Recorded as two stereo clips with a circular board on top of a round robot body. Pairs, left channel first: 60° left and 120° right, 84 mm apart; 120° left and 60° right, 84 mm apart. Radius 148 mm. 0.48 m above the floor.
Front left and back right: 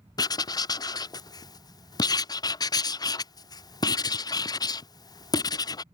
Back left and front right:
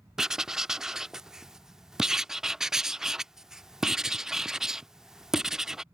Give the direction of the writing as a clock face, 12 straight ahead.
11 o'clock.